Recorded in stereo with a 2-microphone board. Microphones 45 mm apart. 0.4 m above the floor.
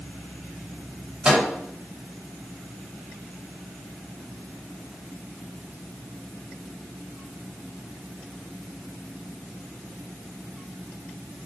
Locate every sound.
1.2 s a microwave: 25° right (ahead or behind), 1.5 m